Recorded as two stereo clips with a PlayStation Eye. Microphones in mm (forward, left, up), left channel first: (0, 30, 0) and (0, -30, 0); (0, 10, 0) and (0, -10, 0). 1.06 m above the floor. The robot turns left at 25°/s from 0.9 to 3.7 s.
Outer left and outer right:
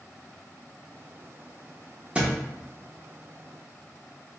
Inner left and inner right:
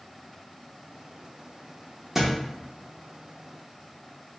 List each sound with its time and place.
2.1 s a thud: 20° right (ahead or behind), 0.6 m